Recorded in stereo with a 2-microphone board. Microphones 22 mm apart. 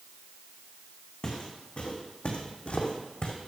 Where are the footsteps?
50° left (ahead or behind), 2 m; by 3.3 s 60° left (ahead or behind), 1.7 m.